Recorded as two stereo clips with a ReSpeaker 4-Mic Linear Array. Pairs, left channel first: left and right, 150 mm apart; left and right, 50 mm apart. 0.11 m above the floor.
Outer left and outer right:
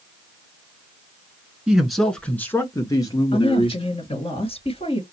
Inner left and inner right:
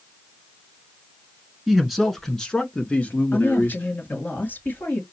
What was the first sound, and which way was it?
A man speaking, 5° right (ahead or behind).